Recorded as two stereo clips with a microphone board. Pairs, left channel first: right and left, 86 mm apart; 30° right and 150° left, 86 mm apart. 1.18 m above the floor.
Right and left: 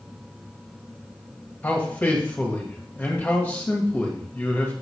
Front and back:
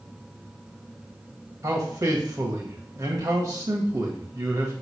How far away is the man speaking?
About 1.9 m.